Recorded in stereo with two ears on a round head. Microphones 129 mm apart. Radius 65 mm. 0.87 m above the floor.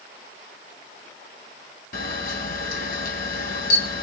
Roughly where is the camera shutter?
Left.